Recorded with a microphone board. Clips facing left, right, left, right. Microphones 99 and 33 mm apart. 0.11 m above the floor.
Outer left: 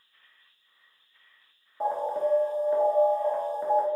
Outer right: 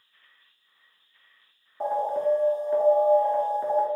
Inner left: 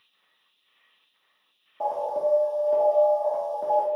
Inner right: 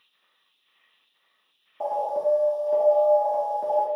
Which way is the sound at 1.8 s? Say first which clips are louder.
Outer right 2 dB, inner right 1 dB; 5° left (ahead or behind).